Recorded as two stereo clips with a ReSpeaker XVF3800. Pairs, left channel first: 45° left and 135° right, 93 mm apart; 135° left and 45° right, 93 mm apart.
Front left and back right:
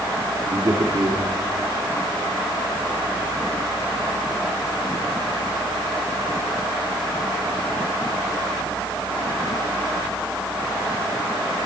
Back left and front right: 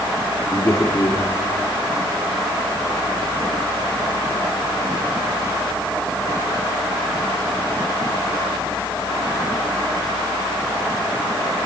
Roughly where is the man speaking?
Behind.